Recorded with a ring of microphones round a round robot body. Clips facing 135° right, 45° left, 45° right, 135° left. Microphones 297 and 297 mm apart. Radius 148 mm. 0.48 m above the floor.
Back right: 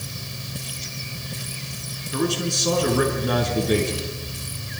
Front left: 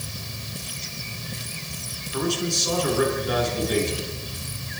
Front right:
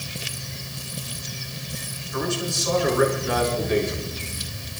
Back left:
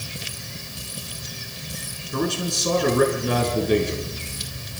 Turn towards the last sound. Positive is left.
turn(degrees=-170)